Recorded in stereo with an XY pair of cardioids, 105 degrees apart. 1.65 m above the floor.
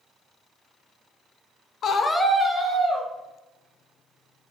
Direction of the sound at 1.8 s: 60° left.